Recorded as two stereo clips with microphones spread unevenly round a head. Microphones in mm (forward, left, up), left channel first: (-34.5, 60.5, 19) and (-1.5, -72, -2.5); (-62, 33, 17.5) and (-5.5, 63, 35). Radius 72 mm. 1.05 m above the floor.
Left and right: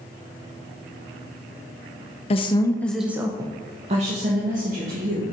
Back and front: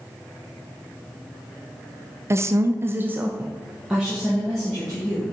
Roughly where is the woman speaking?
Left.